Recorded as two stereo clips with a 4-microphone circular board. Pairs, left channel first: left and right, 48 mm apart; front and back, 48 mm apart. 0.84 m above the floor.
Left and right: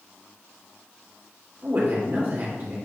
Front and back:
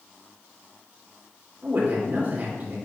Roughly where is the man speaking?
Behind right.